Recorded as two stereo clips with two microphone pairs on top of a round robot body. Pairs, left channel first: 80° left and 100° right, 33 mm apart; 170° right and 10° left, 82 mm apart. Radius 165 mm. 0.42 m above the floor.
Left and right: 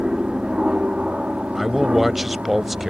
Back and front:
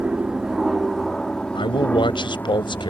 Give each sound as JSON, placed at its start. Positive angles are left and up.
{"t": 0.0, "sound": "an aircraft", "azimuth_deg": -50}
{"t": 1.6, "sound": "a man speaking", "azimuth_deg": 170}